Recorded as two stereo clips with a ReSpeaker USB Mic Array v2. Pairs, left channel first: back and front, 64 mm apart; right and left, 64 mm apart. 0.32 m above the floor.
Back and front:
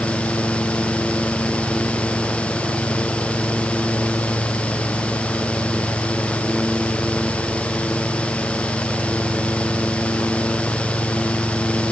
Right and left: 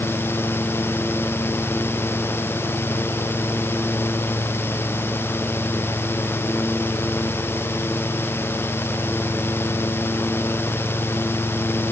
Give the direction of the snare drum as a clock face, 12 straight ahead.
I don't hear a snare drum.